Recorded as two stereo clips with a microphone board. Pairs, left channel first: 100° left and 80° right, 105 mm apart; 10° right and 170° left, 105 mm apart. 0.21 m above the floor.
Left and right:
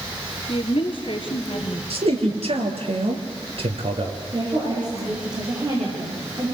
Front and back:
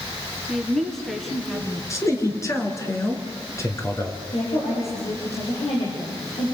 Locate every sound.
0.5 s a woman speaking: 75° left, 2.5 m
1.9 s a man speaking: 70° right, 4 m
4.3 s a woman speaking: 30° right, 9 m